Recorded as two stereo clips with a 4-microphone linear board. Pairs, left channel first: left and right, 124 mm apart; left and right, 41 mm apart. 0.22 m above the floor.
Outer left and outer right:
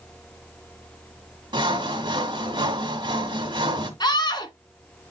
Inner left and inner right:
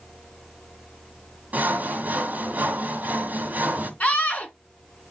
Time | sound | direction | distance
1.5 | sawing | 40° right (ahead or behind) | 2 m
4.0 | a scream | 35° left (ahead or behind) | 2.5 m